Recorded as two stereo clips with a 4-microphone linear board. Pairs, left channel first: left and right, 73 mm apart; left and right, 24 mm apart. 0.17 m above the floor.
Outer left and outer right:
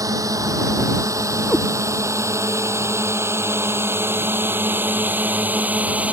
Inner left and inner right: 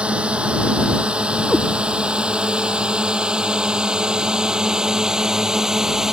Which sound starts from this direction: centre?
A cat meowing, at 1.5 s.